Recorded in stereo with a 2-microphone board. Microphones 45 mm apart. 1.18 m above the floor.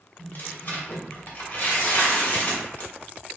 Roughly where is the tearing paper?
Left.